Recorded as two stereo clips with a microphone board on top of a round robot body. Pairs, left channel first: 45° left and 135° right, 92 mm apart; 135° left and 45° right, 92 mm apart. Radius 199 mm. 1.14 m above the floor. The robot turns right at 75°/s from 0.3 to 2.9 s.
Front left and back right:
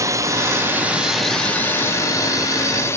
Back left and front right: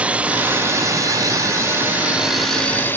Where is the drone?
115° right; by 3.0 s 80° left.